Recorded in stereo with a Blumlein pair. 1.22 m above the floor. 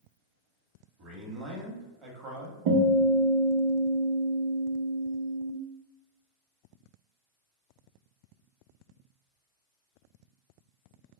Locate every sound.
1.0 s a man speaking: 35° right, 0.9 m
2.7 s a guitar: 40° right, 0.8 m